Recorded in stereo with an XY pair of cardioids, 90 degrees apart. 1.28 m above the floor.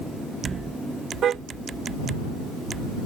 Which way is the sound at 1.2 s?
70° right.